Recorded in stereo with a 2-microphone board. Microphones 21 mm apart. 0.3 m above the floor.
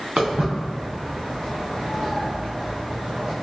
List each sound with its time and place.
0.2 s footsteps: 80° right, 1.7 m; by 3.3 s 45° right (ahead or behind), 2 m